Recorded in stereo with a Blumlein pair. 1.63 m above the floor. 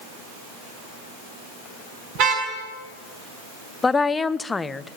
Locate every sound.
2.1 s a car horn: 40° right, 6.5 m
3.8 s a woman speaking: 15° left, 0.5 m